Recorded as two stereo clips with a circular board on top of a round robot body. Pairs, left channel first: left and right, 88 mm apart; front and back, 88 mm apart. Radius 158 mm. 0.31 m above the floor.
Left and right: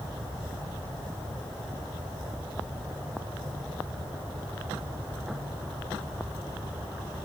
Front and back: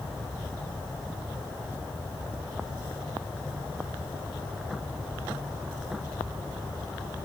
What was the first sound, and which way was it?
Only background noise.